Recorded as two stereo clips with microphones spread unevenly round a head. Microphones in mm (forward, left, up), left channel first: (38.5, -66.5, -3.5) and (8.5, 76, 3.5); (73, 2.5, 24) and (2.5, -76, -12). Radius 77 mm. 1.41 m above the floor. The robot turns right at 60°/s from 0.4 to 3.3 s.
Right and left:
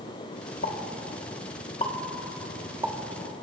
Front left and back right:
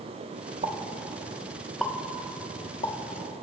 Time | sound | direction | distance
0.6 | a pop | 100° right | 1.4 m